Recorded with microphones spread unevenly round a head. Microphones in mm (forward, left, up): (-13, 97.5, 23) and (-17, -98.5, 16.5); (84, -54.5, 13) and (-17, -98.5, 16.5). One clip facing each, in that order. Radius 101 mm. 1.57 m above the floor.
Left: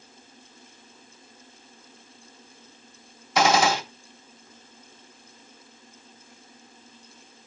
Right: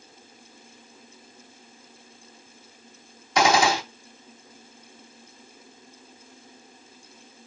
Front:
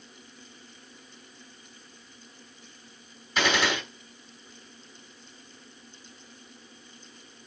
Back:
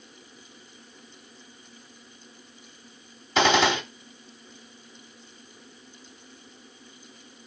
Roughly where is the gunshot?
Behind.